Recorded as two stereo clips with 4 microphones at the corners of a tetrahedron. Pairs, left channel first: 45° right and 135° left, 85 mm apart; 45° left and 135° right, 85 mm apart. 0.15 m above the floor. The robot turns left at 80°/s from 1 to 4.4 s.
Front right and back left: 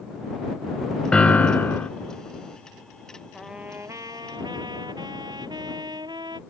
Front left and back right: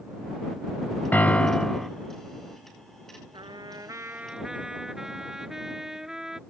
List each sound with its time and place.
1.1 s a piano: 15° left; by 1.9 s 45° right
3.3 s a trumpet: 135° right; by 6.4 s 140° left